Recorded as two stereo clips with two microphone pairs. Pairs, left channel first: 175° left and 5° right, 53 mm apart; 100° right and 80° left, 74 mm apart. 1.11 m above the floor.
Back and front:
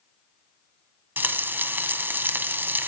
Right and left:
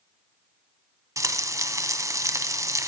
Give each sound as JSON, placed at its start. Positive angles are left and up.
{"t": 1.2, "sound": "frying", "azimuth_deg": 40, "distance_m": 2.0}